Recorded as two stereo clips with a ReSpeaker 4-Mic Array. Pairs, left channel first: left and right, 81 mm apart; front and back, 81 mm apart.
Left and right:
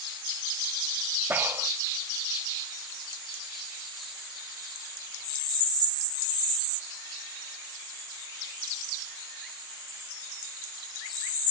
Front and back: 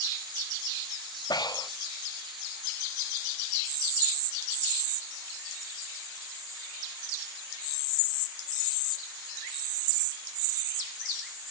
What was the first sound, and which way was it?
Breathing, 25° right.